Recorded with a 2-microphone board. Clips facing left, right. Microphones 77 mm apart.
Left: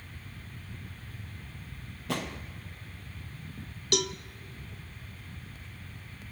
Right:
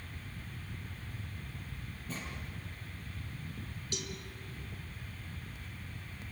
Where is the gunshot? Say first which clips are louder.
Left 10 dB; 75° left (ahead or behind), 1.2 m.